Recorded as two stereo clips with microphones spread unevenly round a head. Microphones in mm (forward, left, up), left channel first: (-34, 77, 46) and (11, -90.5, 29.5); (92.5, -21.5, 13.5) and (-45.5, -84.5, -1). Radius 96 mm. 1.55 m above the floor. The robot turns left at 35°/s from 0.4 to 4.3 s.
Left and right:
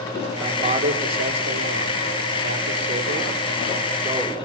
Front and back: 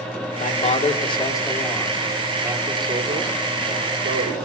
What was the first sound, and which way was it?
A man speaking, 10° right.